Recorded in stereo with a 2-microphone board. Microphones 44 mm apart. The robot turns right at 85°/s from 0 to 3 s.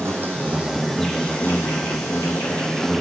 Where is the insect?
75° right, 1.0 m; by 3.0 s straight behind, 1.0 m.